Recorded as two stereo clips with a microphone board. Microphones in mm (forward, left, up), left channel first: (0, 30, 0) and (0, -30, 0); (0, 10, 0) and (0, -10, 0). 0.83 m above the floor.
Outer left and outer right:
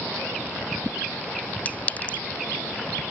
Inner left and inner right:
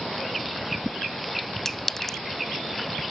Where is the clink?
25° left (ahead or behind).